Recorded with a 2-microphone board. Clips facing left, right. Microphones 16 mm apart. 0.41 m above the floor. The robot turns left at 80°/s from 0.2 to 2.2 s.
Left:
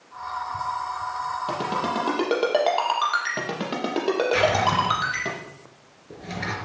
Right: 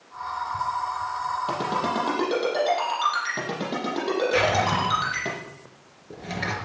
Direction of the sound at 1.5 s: 25° left (ahead or behind).